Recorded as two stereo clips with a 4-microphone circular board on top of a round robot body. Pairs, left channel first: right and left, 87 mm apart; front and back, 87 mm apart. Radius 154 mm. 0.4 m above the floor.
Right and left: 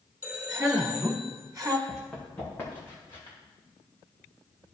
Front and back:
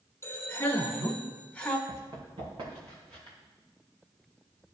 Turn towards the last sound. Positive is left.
turn(degrees=-145)